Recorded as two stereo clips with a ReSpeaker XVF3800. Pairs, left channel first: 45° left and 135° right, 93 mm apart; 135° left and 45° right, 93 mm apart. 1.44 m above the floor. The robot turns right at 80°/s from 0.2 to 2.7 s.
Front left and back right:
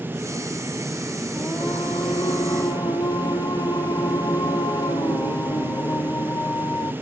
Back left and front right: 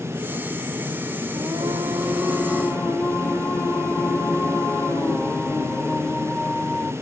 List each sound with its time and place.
1.4 s singing: 35° right, 1.4 m; by 6.9 s 75° left, 1.4 m